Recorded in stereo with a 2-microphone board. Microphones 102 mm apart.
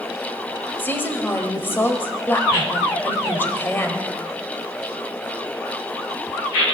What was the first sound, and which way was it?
A woman speaking, 20° left (ahead or behind).